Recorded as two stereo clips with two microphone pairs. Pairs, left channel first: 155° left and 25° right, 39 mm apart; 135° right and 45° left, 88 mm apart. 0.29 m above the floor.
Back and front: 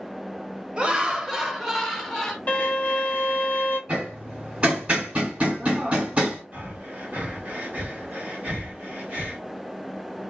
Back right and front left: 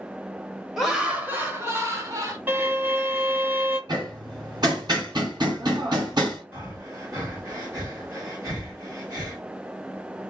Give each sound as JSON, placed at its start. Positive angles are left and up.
{"t": 0.8, "sound": "laughter", "azimuth_deg": -40, "distance_m": 0.9}
{"t": 2.5, "sound": "a violin", "azimuth_deg": 115, "distance_m": 1.0}
{"t": 3.9, "sound": "hammering", "azimuth_deg": 30, "distance_m": 1.8}
{"t": 6.5, "sound": "breathing", "azimuth_deg": 5, "distance_m": 1.6}